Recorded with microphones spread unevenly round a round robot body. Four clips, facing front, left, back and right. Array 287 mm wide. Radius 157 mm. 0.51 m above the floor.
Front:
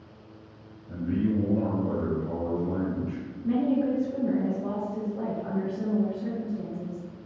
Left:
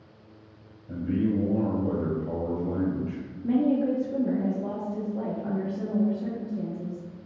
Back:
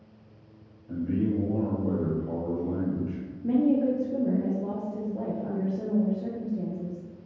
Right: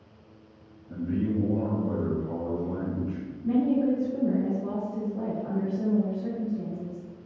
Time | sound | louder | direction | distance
0.9 | a man speaking | left 2 dB, even | 120° left | 1.9 m
3.4 | a woman speaking | even, back 2 dB | 145° left | 0.7 m